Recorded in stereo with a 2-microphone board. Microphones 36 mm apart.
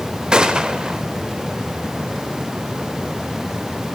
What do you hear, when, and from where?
0.3 s a gunshot: 20° right (ahead or behind), 0.5 m